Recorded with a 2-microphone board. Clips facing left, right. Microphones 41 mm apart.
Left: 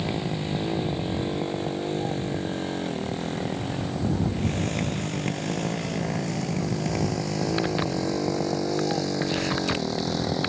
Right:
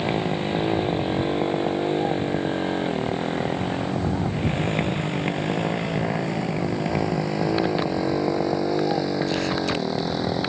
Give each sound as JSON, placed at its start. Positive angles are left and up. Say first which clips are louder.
{"t": 0.0, "sound": "a motorcycle", "louder": "right 5 dB", "side_deg": -25}